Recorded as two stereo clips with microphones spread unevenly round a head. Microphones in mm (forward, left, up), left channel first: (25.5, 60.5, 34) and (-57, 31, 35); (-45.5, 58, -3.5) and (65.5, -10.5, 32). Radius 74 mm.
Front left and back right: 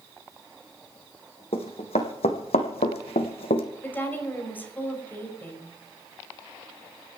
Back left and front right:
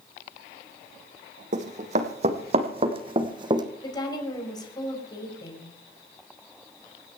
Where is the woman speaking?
85° left, 5.5 m.